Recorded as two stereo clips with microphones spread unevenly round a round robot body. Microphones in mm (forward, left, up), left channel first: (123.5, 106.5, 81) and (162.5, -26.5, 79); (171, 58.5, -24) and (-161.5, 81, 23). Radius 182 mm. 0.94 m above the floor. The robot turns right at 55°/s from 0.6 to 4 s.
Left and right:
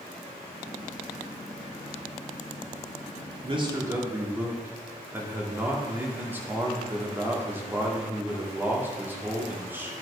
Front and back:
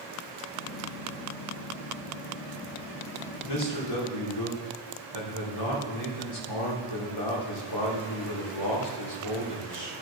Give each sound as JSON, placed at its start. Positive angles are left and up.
{"t": 3.4, "sound": "a man speaking", "azimuth_deg": -30, "distance_m": 3.0}